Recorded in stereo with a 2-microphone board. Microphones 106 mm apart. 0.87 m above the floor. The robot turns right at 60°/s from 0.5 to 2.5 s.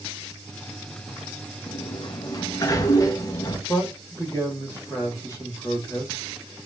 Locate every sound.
1.7 s a sliding door: 85° left, 0.5 m; by 3.6 s 135° left, 0.5 m
3.7 s a man speaking: 30° left (ahead or behind), 1.1 m